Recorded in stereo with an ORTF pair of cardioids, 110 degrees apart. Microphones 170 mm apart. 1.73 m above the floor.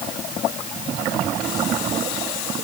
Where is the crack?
No crack in this recording.